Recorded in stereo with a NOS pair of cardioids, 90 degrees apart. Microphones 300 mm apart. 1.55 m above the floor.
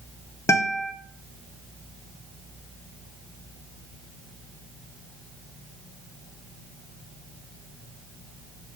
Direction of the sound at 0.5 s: 10° left.